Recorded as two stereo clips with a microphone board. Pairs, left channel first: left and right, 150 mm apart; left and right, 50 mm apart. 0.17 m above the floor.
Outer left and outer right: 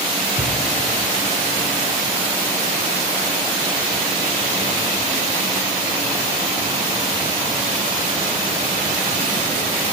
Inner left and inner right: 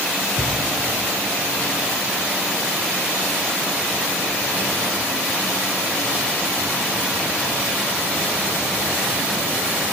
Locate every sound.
0.4 s a thud: 50° left (ahead or behind), 4.5 m